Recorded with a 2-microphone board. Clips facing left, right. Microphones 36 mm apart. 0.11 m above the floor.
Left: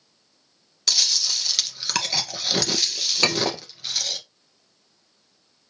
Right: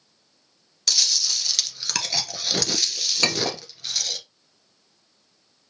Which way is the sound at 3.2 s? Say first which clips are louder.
Left 2 dB; 5° left (ahead or behind).